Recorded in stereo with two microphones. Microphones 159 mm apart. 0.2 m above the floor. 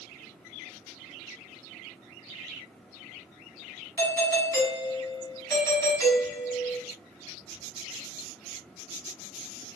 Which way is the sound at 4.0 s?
20° left (ahead or behind).